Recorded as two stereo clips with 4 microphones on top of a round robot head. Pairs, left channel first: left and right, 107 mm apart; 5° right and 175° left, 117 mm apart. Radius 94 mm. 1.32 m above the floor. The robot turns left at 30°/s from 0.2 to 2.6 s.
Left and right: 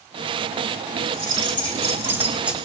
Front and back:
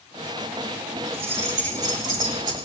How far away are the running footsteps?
No running footsteps in this recording.